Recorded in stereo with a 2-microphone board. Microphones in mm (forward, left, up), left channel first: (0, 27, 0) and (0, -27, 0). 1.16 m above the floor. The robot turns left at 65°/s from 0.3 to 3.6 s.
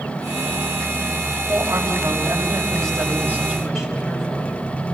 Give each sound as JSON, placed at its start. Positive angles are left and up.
{"t": 1.5, "sound": "a woman speaking", "azimuth_deg": -35, "distance_m": 5.0}